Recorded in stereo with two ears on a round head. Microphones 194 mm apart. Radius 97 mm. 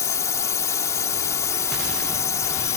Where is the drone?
15° left (ahead or behind).